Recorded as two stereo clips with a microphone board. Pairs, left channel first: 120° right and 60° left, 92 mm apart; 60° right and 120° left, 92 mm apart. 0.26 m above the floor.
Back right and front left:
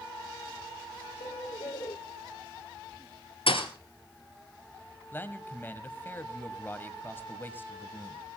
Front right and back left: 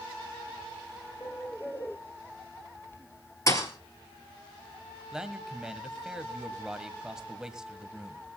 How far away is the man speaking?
About 1.6 m.